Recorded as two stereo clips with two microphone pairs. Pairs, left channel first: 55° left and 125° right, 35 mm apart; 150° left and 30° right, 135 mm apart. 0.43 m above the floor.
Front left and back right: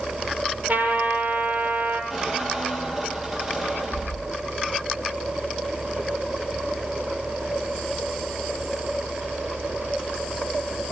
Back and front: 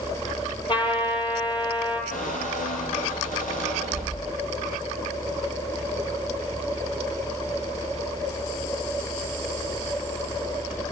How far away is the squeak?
About 5.5 m.